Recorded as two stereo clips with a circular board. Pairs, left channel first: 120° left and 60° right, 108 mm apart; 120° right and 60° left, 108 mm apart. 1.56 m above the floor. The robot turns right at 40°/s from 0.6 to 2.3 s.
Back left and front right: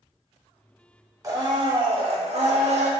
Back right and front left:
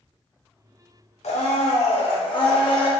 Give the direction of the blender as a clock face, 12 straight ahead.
4 o'clock.